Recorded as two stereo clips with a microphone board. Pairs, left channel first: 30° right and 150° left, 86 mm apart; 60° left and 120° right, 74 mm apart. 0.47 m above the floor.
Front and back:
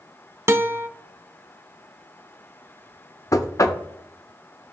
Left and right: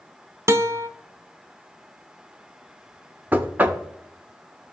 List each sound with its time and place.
0.5 s a guitar: 160° right, 0.5 m
3.3 s knocking: 60° right, 0.6 m